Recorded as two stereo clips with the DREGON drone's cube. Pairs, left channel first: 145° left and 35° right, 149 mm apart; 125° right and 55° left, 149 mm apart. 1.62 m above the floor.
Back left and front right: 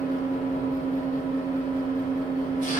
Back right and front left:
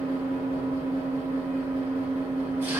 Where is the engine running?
130° left, 0.9 m.